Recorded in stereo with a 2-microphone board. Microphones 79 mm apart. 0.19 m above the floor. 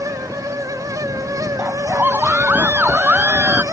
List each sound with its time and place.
1.6 s a scream: 20° right (ahead or behind)